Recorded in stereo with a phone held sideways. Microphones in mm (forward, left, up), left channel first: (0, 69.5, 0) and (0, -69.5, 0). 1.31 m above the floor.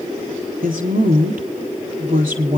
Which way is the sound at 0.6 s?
85° right.